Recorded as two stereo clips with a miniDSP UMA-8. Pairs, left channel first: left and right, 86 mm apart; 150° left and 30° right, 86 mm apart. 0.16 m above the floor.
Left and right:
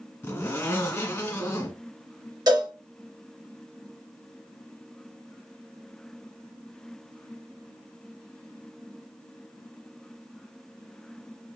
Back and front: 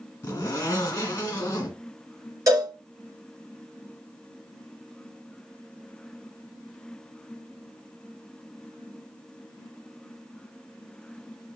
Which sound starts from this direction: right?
A cowbell, at 2.5 s.